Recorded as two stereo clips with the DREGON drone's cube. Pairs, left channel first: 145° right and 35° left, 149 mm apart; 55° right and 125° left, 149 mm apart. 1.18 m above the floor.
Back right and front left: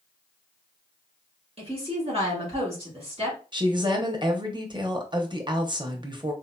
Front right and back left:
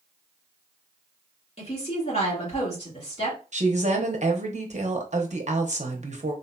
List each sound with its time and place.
1.6 s a woman speaking: 10° right, 1.7 m
3.5 s a woman speaking: 90° left, 0.8 m